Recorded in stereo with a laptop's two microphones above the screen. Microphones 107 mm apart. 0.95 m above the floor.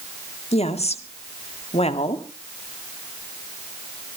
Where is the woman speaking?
75° left (ahead or behind), 2 m.